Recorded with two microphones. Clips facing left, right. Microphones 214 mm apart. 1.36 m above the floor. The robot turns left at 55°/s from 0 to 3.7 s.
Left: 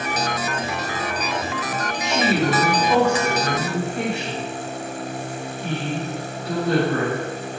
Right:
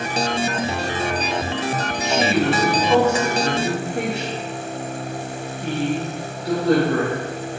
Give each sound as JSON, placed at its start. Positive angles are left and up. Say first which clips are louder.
{"t": 2.0, "sound": "a woman speaking", "louder": "right 1 dB", "azimuth_deg": 55, "distance_m": 3.0}